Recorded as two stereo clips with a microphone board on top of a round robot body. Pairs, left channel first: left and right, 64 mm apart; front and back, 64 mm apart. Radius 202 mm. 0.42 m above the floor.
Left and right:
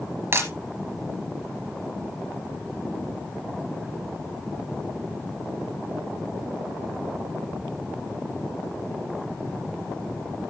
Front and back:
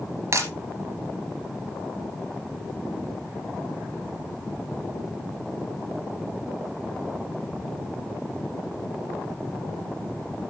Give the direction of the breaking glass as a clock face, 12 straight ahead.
5 o'clock.